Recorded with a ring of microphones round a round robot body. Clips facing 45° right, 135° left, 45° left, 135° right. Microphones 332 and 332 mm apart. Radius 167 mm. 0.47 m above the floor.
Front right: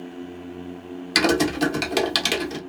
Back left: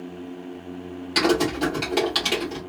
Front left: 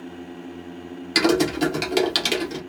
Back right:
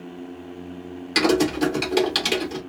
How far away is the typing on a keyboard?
About 0.9 m.